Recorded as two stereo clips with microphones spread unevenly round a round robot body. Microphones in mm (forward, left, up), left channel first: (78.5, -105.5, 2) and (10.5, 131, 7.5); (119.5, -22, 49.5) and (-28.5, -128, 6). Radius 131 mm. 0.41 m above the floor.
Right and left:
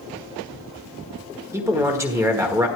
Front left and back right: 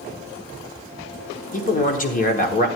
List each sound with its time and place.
1.5 s a man speaking: 35° left, 1.4 m